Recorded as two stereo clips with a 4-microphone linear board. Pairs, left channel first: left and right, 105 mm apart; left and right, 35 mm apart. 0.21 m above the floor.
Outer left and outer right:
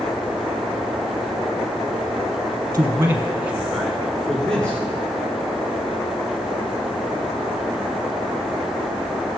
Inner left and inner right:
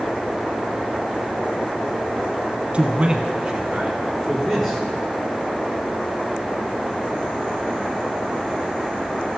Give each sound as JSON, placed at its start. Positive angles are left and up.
{"t": 2.7, "sound": "a man speaking", "side_deg": -30, "distance_m": 2.0}